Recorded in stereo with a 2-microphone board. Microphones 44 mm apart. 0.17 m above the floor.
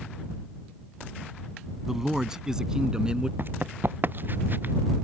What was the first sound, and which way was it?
A man speaking, 10° right (ahead or behind).